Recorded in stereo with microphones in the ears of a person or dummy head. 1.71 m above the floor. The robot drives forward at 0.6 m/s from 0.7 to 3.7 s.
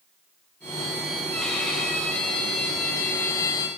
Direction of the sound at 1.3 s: 5° left (ahead or behind).